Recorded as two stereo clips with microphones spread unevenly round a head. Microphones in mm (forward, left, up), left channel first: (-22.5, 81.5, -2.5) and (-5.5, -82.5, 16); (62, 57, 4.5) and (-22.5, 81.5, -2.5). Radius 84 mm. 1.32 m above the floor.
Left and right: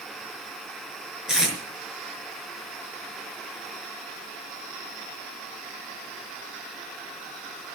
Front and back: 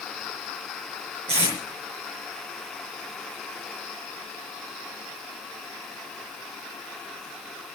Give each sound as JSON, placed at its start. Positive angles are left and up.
{"t": 1.3, "sound": "tape being pulled", "azimuth_deg": -170, "distance_m": 5.0}